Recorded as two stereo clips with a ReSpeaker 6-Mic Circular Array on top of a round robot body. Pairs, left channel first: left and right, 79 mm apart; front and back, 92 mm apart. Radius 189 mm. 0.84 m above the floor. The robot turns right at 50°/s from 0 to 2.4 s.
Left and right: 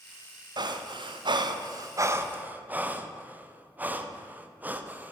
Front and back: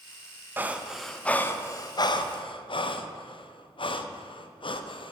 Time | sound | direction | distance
0.6 | breathing | 115° right | 0.8 m